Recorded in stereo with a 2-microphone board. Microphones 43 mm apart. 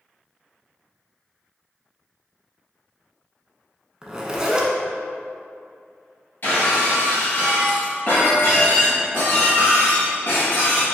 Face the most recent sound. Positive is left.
turn(degrees=50)  # may be behind; listen again after turning